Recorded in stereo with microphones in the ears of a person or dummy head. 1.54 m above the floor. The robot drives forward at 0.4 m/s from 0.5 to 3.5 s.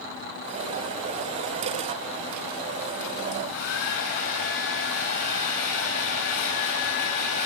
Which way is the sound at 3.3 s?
65° left (ahead or behind).